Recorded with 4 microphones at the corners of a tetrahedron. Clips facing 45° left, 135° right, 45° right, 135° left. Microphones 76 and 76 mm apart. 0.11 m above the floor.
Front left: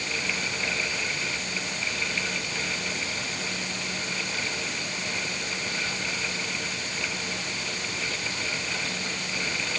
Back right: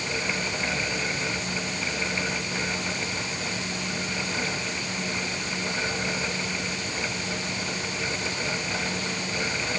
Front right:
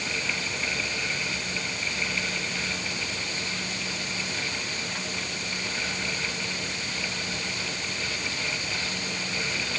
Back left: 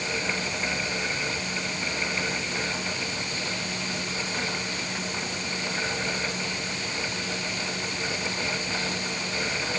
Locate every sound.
Only background noise.